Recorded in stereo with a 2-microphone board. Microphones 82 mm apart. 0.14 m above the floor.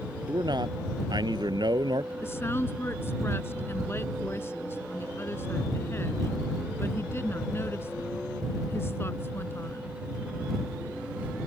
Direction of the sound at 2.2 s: 30° left (ahead or behind).